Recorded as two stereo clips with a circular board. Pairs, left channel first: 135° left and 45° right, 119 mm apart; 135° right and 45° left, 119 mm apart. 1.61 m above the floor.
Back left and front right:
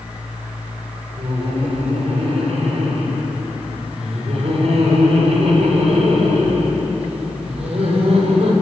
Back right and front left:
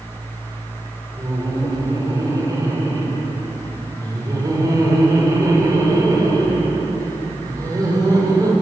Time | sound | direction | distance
1.2 | laughter | 15° right | 6.5 m